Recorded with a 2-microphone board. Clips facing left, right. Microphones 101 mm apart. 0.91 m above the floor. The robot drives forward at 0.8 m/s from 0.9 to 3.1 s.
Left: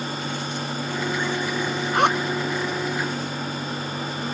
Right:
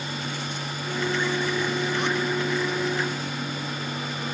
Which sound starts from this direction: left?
A zipper, at 1.9 s.